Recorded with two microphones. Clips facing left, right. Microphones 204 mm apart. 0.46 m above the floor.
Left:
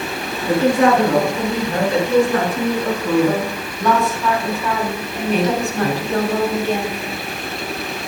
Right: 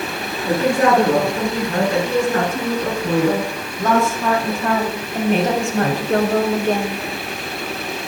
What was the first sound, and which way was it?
A woman speaking, 40° right (ahead or behind).